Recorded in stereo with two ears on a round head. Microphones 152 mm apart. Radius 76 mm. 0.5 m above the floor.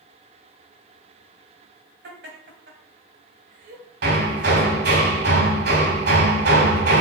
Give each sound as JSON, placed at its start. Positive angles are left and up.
{"t": 2.0, "sound": "laughter", "side_deg": -65, "distance_m": 2.5}
{"t": 4.0, "sound": "hammering", "side_deg": -65, "distance_m": 2.0}